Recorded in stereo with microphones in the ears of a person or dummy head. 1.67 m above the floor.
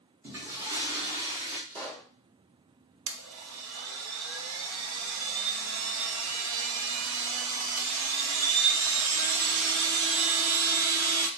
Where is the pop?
20° right (ahead or behind), 1.4 m.